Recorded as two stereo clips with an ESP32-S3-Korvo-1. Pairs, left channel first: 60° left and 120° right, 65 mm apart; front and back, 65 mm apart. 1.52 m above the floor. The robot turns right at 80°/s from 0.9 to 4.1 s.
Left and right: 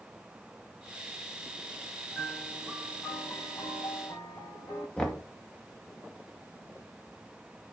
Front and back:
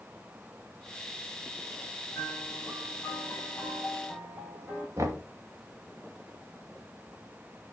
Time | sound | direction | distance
2.1 | a piano | 45° right | 5.5 m
5.0 | knocking | 135° left | 1.9 m